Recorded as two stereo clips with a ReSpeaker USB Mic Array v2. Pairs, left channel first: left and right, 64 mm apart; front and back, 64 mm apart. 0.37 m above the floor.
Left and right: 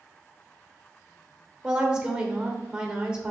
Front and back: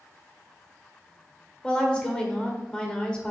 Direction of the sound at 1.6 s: 40° right.